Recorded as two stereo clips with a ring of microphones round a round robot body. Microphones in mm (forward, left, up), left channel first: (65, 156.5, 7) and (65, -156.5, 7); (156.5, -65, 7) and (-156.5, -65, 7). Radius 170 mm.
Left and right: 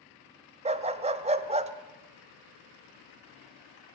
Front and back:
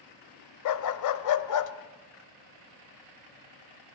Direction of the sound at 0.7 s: 20° right.